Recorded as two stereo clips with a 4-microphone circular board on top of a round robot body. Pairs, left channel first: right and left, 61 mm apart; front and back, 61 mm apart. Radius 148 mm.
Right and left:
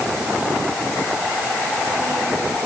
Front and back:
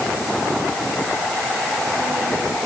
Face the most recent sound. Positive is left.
No sound to turn to.